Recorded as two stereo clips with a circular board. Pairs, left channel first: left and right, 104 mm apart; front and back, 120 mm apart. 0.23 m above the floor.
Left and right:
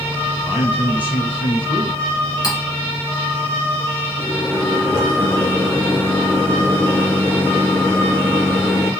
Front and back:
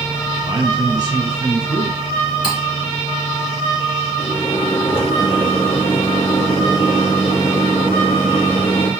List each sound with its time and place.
0.5 s a man speaking: 155° right, 1.5 m
2.4 s cutlery clinking: 45° left, 1.7 m
4.2 s a microwave: 25° left, 2 m